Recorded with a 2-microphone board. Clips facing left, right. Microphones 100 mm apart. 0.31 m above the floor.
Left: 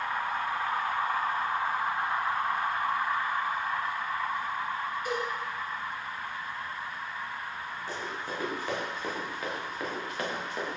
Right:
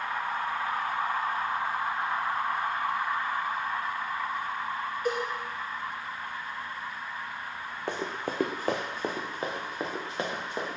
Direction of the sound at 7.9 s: 65° right (ahead or behind).